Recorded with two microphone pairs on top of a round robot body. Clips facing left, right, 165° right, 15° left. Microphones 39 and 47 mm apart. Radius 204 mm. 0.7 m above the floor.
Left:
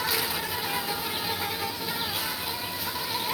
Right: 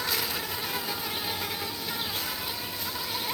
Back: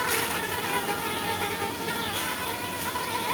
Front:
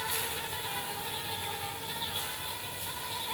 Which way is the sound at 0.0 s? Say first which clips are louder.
Left 2 dB, back 8 dB; straight behind.